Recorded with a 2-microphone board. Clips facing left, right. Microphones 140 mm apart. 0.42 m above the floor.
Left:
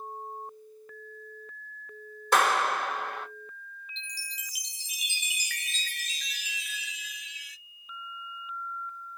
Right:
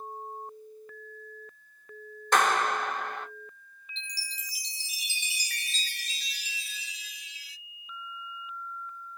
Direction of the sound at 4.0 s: 35° right (ahead or behind).